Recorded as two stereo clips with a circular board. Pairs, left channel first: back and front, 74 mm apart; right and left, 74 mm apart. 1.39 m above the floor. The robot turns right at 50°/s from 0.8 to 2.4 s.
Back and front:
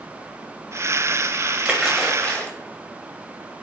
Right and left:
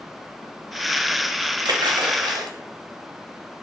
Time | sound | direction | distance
1.6 | a splash | 70° left | 0.7 m